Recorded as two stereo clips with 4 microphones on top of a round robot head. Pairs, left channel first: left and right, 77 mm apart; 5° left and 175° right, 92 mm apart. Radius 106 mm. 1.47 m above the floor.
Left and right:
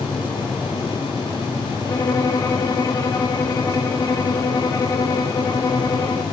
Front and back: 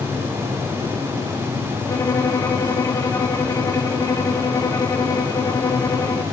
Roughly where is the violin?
Ahead left.